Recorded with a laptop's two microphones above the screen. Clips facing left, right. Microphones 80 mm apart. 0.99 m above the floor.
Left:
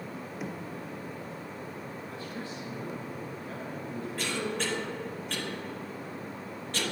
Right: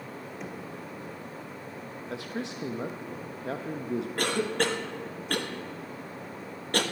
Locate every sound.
0.4 s knocking: 5° left (ahead or behind), 0.7 m
2.1 s a man speaking: 80° right, 0.8 m
4.2 s a cough: 55° right (ahead or behind), 1.2 m